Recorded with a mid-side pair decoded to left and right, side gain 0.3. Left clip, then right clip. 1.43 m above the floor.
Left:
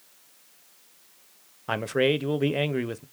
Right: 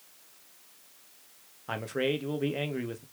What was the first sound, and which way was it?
A man speaking, 65° left.